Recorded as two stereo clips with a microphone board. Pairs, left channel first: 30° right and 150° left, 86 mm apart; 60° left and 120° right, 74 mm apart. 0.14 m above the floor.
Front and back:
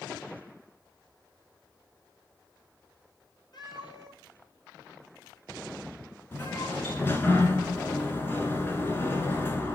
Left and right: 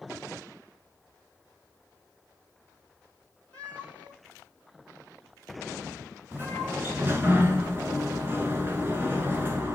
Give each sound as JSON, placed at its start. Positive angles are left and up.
{"t": 3.5, "sound": "a cat meowing", "azimuth_deg": -10, "distance_m": 2.0}
{"t": 6.3, "sound": "a sliding door", "azimuth_deg": -80, "distance_m": 1.1}